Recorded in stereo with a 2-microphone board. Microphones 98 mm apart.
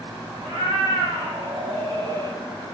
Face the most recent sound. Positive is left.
turn(degrees=-40)  # may be behind; listen again after turning